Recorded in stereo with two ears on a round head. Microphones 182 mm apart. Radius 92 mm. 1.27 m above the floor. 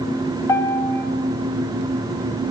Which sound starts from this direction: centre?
A piano, at 0.5 s.